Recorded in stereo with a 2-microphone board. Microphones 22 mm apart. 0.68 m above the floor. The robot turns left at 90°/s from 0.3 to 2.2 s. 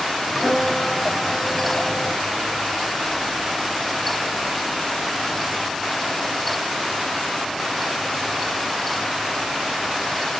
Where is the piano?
135° right, 4.5 m; by 2.1 s 70° left, 4.5 m.